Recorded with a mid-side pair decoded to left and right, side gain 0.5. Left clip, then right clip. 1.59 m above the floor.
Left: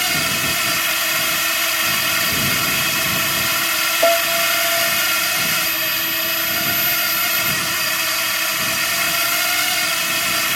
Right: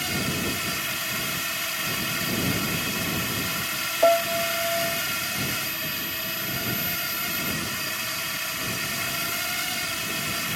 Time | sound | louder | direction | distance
0.0 | a drone | left 9 dB | 55° left | ?
4.0 | a piano | left 2 dB | 15° left | ?